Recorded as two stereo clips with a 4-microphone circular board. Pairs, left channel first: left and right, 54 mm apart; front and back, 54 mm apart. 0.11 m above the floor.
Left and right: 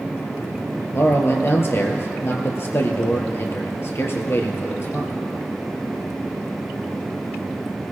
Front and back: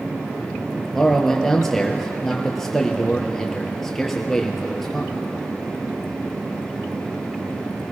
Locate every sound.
0.9 s a man speaking: 75° left, 1.8 m